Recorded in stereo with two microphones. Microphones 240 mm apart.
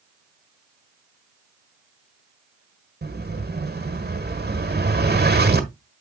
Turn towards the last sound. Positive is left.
turn(degrees=-45)  # may be behind; listen again after turning